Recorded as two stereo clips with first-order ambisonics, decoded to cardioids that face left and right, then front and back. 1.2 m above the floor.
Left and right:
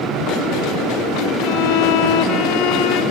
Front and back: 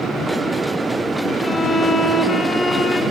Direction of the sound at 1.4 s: 75° left.